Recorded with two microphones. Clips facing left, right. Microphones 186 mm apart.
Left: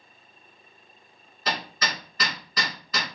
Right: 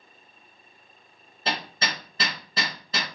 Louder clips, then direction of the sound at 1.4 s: Even; 30° right (ahead or behind).